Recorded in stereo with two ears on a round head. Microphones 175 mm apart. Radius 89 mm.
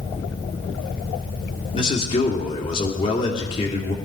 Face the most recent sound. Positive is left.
turn(degrees=25)  # may be behind; listen again after turning